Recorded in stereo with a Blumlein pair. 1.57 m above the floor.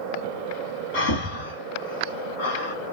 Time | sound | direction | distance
0.9 | breathing | 50° left | 1.3 m